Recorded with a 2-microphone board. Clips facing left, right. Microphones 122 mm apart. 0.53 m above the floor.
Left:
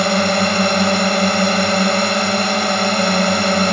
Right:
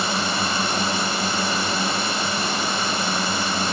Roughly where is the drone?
Left.